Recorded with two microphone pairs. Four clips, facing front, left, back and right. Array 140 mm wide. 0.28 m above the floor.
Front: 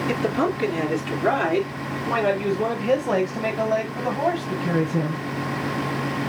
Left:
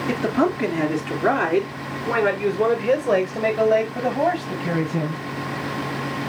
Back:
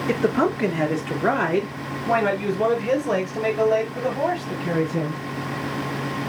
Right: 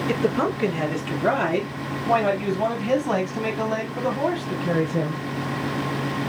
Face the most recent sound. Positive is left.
turn(degrees=110)